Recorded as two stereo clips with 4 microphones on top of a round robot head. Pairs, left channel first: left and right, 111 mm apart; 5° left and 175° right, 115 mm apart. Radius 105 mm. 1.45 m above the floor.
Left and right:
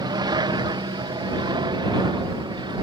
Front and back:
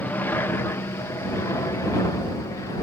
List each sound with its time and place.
0.0 s an aircraft: 65° right; by 2.8 s 50° right